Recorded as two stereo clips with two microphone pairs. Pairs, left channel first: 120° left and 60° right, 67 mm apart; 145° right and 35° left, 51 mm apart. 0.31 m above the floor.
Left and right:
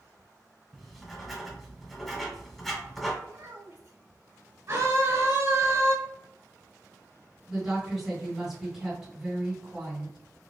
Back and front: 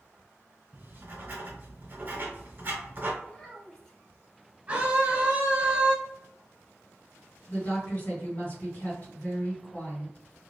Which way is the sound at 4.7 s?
30° right.